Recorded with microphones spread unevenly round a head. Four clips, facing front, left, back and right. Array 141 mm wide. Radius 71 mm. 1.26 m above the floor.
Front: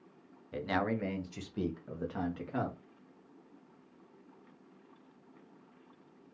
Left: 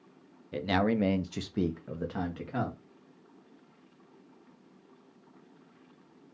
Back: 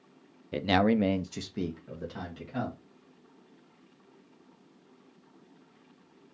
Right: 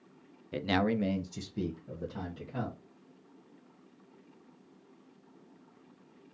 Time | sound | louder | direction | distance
0.5 | a man speaking | left 2 dB, back 8 dB | 160° right | 0.7 m